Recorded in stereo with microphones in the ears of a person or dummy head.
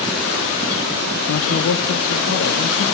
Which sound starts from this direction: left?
A man speaking, at 1.3 s.